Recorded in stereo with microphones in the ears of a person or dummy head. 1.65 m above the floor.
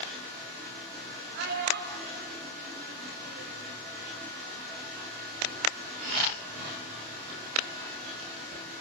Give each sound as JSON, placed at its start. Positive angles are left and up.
{"t": 1.3, "sound": "a child speaking", "side_deg": -65, "distance_m": 5.5}